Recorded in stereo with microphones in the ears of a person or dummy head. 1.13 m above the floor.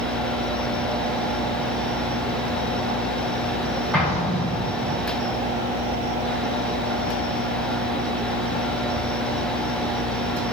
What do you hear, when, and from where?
3.9 s an explosion: 5° left (ahead or behind), 5 m